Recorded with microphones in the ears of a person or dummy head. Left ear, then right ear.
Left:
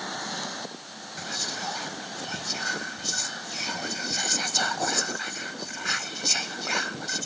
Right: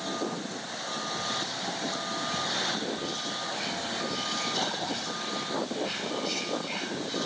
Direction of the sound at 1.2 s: 60° left (ahead or behind).